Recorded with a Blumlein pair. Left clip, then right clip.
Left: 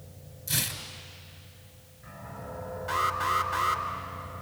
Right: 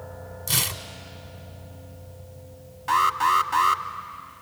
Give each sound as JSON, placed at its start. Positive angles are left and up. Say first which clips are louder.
{"t": 0.5, "sound": "tearing paper", "louder": "right 5 dB", "azimuth_deg": -65, "distance_m": 1.7}
{"t": 2.9, "sound": "an alarm", "louder": "right 7 dB", "azimuth_deg": -65, "distance_m": 1.7}